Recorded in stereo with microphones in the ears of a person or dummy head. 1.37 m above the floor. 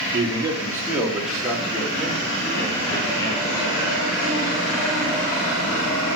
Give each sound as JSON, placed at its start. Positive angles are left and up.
{"t": 0.1, "sound": "a man speaking", "side_deg": -30, "distance_m": 3.0}